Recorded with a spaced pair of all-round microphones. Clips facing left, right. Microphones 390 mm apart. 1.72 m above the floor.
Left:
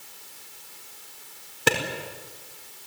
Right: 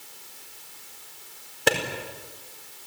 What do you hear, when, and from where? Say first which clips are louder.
1.7 s a clap: right 1 dB; 15° left (ahead or behind), 4.5 m